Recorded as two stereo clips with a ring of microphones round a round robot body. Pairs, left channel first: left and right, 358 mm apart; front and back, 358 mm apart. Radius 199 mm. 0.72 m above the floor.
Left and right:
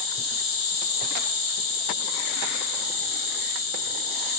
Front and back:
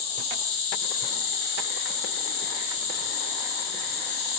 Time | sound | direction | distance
0.0 | an insect | 40° left | 1.7 m